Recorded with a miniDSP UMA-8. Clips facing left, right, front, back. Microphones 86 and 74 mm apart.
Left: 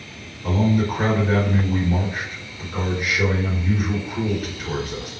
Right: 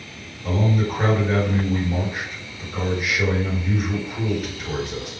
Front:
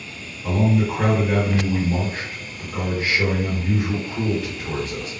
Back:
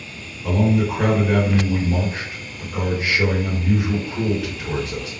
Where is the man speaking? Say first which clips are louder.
Left 2 dB, back 1 dB; 90° left, 1.7 m.